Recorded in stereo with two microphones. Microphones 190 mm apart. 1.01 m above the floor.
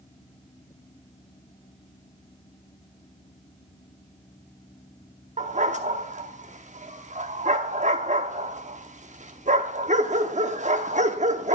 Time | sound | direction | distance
5.4 | a dog barking | 40° right (ahead or behind) | 0.8 m